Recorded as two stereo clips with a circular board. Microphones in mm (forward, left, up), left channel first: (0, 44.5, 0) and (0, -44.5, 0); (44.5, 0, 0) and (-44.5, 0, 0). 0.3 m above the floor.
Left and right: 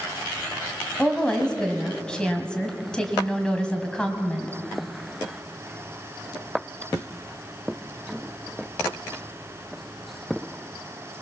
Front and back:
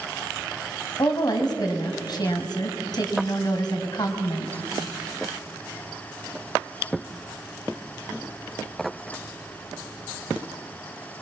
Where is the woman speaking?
10° left, 2 m.